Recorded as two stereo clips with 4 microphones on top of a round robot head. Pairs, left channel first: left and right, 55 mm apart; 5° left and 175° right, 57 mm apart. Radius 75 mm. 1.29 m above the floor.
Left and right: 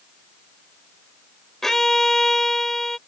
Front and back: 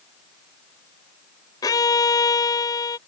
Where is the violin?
5° left.